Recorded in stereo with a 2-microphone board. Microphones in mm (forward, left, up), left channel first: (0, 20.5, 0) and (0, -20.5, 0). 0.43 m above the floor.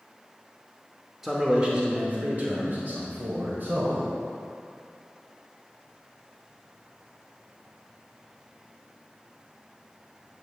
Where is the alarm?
I don't hear an alarm.